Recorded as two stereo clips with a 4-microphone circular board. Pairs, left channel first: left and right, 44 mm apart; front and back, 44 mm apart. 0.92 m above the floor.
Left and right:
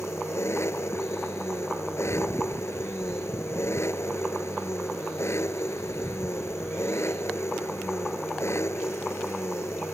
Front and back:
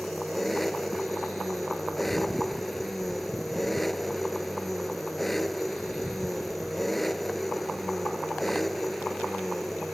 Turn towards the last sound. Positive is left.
turn(degrees=90)